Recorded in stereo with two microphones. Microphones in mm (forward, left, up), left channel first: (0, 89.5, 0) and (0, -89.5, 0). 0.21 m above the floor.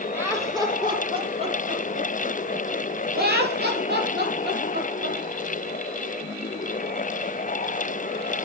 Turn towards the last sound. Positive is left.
turn(degrees=-80)